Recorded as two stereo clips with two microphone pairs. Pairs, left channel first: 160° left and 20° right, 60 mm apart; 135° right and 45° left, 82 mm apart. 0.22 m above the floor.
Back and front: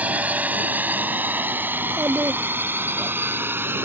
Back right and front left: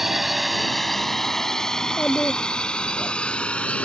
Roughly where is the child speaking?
Ahead right.